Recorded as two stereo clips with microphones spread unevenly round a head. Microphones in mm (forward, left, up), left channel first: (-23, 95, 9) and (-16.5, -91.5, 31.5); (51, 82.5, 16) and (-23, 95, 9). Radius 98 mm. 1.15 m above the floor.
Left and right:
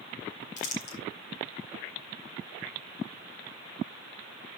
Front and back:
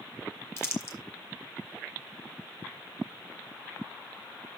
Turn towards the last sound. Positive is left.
turn(degrees=40)